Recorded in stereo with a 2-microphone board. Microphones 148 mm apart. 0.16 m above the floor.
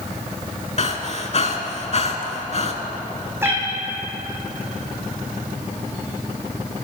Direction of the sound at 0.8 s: 50° left (ahead or behind).